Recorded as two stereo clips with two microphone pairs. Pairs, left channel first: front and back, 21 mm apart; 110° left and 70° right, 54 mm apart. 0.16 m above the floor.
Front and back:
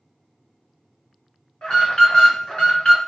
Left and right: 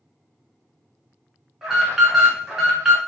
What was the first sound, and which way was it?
An alarm, 5° left.